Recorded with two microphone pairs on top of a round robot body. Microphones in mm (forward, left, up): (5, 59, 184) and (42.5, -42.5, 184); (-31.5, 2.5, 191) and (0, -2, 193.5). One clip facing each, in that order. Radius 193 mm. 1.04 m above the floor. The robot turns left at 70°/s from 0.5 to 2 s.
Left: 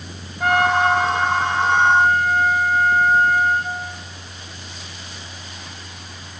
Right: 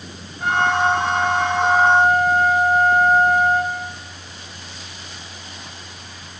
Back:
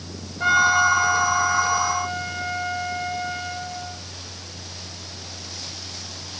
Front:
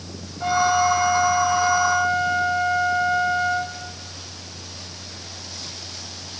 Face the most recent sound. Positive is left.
turn(degrees=10)